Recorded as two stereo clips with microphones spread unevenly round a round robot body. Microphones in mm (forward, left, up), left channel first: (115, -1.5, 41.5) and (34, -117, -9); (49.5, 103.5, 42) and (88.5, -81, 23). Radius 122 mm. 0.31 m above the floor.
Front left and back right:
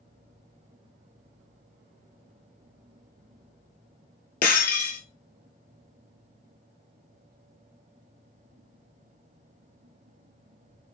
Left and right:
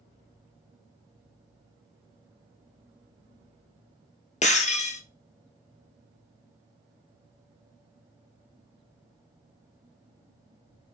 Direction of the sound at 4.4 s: 50° left.